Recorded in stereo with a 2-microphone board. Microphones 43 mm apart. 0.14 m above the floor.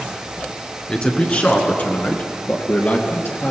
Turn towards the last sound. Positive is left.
turn(degrees=55)  # may be behind; listen again after turning